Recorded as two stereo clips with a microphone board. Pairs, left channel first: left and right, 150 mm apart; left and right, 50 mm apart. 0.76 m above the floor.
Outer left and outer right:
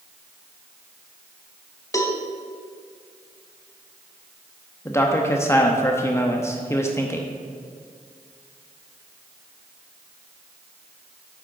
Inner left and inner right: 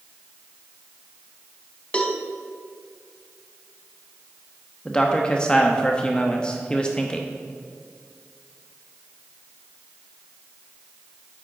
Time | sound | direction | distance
1.9 | a cowbell | 20° left (ahead or behind) | 0.8 m
4.8 | a man speaking | 15° left (ahead or behind) | 0.7 m